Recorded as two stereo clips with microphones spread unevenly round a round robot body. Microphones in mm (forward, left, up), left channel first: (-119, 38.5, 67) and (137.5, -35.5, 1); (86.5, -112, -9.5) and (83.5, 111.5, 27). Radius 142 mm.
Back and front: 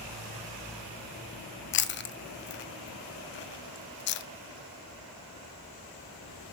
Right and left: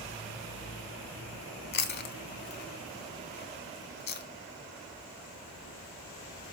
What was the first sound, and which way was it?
Chewing, 150° right.